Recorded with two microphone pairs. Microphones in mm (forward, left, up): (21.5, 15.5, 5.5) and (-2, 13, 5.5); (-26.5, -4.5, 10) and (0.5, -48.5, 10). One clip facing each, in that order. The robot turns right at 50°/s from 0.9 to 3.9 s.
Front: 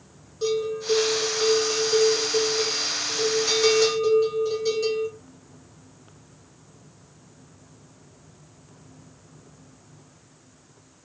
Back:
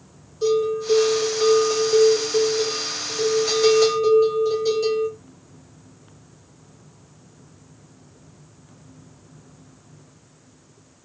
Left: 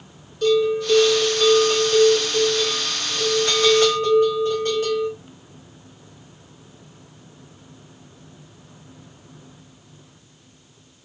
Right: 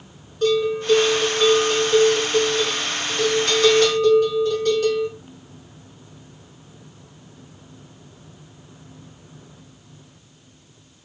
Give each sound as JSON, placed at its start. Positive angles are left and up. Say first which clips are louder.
{"t": 0.4, "sound": "a bell", "louder": "back 5 dB, left 1 dB", "azimuth_deg": -55, "distance_m": 1.9}